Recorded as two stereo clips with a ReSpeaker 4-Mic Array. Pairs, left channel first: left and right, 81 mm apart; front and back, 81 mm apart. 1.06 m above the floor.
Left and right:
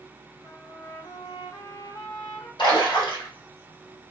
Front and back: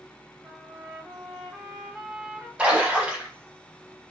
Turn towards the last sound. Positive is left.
turn(degrees=100)